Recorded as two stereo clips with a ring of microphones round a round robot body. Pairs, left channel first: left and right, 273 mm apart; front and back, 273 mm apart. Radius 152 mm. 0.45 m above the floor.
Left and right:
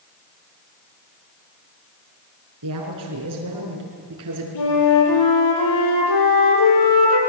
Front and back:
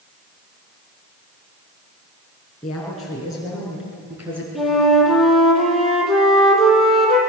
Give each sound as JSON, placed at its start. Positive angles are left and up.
{"t": 2.6, "sound": "a woman speaking", "azimuth_deg": -90, "distance_m": 6.0}
{"t": 4.5, "sound": "a flute", "azimuth_deg": 90, "distance_m": 5.5}